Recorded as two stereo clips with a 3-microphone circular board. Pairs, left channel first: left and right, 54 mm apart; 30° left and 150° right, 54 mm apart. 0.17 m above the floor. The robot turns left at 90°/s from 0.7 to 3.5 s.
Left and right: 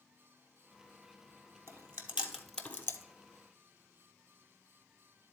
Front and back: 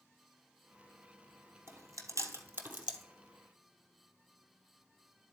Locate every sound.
1.7 s chewing: 110° right, 1.1 m; by 3.0 s 125° left, 1.1 m